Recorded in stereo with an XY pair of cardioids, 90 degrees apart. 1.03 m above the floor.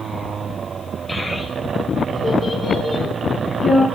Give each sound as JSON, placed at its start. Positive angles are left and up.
{"t": 1.1, "sound": "a child speaking", "azimuth_deg": 25, "distance_m": 3.5}